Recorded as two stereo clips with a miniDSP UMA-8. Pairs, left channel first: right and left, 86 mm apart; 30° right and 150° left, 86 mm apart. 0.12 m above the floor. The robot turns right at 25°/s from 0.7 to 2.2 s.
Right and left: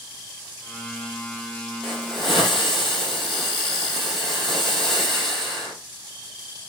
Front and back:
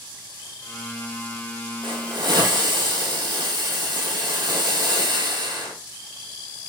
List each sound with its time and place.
1.8 s a hiss: 175° left, 2 m; by 5.7 s 175° right, 2 m